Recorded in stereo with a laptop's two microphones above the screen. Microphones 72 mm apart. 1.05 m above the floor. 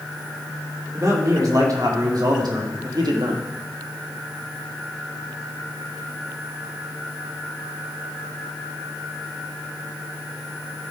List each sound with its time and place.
0.9 s a man speaking: 50° right (ahead or behind), 2.5 m; by 3.4 s 80° right, 1.5 m